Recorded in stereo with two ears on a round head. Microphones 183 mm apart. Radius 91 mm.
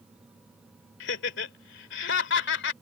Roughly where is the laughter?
Left.